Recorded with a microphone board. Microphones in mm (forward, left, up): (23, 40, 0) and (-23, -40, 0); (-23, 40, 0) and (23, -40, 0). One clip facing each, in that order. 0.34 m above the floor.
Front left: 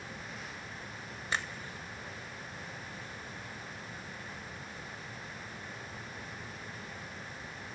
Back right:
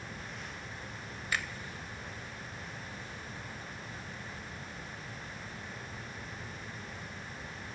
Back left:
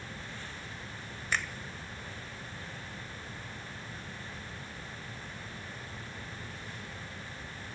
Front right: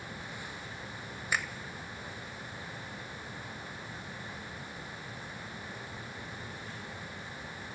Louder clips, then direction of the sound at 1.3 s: Even, even; 15° left.